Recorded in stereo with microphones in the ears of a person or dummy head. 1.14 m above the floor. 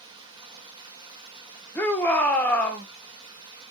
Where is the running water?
20° right (ahead or behind), 0.9 m.